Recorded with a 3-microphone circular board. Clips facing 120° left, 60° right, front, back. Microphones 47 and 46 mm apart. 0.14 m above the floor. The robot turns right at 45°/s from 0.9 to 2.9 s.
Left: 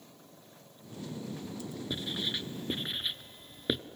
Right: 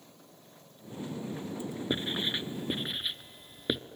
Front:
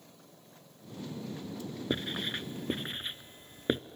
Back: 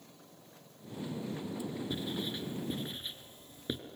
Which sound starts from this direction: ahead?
Writing, at 1.9 s.